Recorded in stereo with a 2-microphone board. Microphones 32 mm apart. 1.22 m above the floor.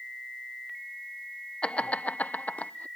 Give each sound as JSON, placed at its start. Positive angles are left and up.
{"t": 1.6, "sound": "laughter", "side_deg": 30}